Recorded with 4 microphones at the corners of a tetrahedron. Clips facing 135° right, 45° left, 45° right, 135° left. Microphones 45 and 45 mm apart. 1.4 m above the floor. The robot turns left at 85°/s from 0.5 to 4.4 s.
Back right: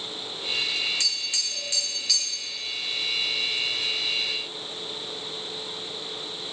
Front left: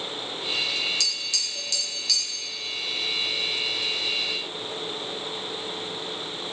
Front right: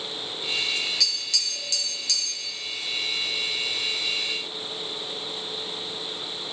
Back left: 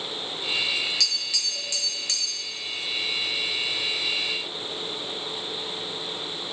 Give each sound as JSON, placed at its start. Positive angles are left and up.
{"t": 1.0, "sound": "tapping", "azimuth_deg": -120, "distance_m": 1.3}